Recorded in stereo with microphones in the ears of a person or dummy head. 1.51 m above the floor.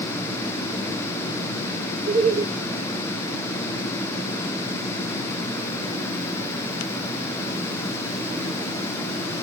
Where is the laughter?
40° right (ahead or behind), 1.0 m.